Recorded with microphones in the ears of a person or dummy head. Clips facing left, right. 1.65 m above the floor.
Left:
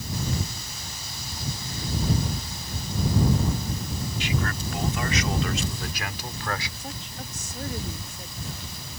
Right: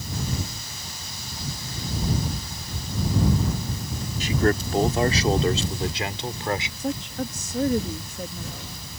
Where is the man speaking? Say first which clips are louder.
Right 10 dB; 40° right (ahead or behind); by 6.7 s 20° right (ahead or behind).